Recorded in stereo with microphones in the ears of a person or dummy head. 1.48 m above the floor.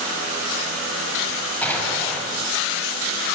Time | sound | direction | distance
1.6 | an explosion | 5° left (ahead or behind) | 6.5 m